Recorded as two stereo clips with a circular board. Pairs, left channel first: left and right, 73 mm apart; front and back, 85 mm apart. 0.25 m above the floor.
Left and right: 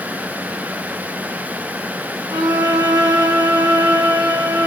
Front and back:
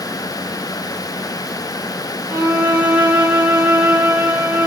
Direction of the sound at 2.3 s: 110° right.